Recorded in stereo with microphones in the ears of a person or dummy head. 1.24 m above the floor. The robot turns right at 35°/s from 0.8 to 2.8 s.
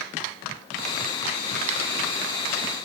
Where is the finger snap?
40° right (ahead or behind), 7.5 m; by 1.8 s 35° right (ahead or behind), 7.5 m.